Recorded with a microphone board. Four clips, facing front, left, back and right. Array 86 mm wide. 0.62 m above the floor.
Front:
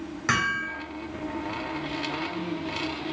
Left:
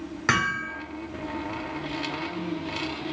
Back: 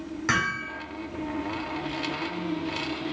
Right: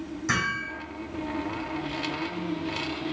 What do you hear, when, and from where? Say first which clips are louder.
0.3 s hammering: left 4 dB, front 1 dB; 90° left, 1.3 m